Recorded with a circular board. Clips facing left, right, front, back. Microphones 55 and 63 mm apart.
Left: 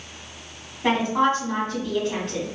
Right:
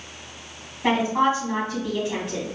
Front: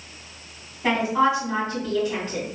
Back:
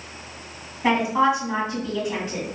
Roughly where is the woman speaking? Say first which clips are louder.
Even, back 1 dB; behind right.